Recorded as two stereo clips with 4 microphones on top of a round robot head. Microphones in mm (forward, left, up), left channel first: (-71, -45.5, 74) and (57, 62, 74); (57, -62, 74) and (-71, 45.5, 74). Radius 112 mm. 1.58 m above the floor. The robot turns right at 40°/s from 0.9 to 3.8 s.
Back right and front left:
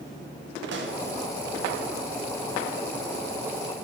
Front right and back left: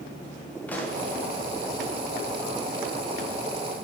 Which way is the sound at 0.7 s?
40° left.